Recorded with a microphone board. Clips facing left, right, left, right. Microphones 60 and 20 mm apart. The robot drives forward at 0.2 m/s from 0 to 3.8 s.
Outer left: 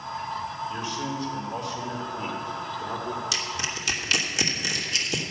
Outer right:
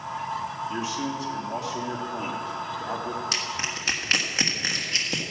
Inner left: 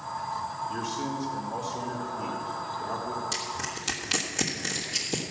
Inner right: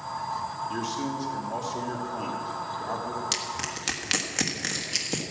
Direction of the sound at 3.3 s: 40° right (ahead or behind).